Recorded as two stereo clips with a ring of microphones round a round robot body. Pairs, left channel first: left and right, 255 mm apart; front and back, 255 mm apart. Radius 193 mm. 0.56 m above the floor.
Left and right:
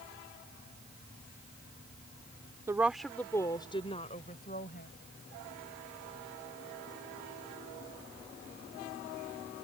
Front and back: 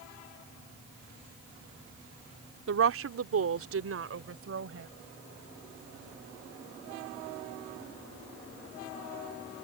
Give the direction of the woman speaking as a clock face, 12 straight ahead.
6 o'clock.